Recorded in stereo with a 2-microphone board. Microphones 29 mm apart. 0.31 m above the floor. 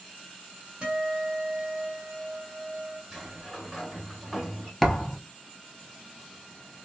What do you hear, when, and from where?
0.8 s a guitar: 40° right (ahead or behind), 1.2 m
3.1 s a sliding door: 10° right (ahead or behind), 0.8 m
4.8 s a thud: 5° left (ahead or behind), 0.6 m